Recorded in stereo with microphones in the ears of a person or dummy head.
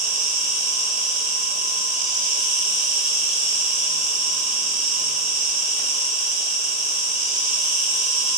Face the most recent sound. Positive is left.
turn(degrees=-15)  # may be behind; listen again after turning